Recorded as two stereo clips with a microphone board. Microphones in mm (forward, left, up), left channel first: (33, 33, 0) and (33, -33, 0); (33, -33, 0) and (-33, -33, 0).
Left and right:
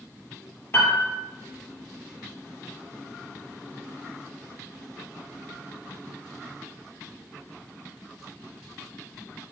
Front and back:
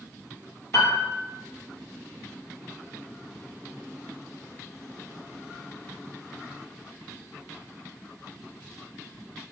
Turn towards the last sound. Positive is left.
turn(degrees=35)